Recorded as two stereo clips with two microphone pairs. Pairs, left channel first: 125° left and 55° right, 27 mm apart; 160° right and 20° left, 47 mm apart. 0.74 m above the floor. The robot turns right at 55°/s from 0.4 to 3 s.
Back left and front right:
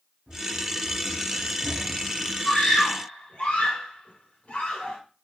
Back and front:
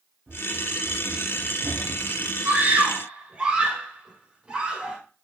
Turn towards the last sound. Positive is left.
turn(degrees=90)